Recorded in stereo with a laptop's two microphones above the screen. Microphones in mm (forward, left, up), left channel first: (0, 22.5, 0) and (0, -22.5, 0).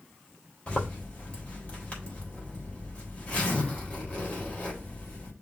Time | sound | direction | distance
0.7 | a zipper | 25° left (ahead or behind) | 3.5 m